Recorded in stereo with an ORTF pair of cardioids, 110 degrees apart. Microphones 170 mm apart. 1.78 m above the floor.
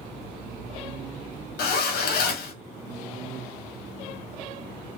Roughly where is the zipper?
Ahead left.